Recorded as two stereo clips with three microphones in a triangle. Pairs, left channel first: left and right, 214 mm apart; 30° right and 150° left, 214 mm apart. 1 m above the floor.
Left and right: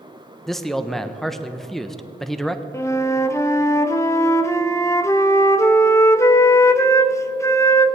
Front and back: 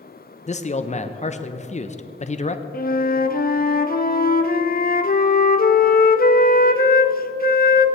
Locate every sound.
0.5 s a man speaking: straight ahead, 0.6 m
2.7 s a flute: 10° left, 0.6 m